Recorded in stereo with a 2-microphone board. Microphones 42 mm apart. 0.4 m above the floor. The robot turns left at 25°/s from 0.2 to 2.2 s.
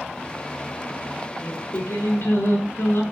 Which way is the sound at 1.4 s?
65° left (ahead or behind).